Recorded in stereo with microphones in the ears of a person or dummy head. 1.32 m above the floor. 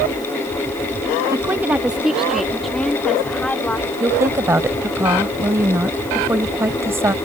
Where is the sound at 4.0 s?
15° right (ahead or behind).